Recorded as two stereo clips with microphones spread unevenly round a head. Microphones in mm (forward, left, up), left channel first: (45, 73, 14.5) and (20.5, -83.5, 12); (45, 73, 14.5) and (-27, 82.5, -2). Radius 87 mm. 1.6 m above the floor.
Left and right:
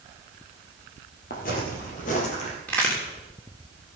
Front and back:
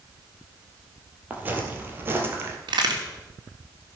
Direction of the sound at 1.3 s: 105° left.